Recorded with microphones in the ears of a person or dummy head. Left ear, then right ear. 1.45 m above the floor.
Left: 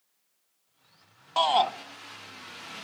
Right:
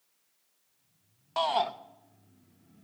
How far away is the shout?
About 0.6 m.